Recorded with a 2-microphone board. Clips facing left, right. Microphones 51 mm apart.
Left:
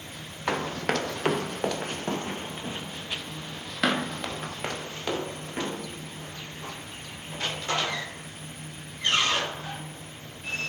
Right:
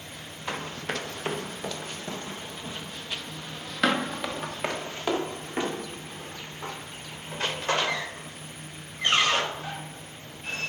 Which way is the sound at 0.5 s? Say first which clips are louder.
Left 5 dB; 65° left (ahead or behind).